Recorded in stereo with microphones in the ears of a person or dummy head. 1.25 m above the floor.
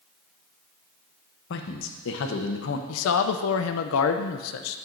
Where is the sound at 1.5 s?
65° left (ahead or behind), 0.8 m.